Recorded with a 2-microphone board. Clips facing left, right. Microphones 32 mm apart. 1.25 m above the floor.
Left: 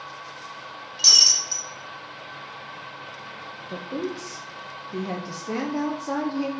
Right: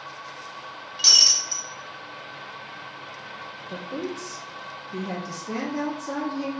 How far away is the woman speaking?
About 0.6 m.